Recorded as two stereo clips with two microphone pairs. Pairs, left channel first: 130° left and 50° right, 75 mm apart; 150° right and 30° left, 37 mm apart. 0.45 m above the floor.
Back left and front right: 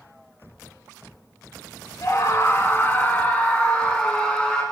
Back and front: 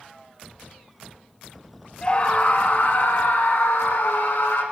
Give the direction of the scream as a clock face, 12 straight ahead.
7 o'clock.